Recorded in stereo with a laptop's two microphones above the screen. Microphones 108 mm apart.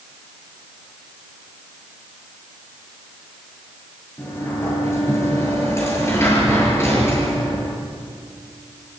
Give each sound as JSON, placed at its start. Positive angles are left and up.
{"t": 4.2, "sound": "a sliding door", "side_deg": 25, "distance_m": 7.5}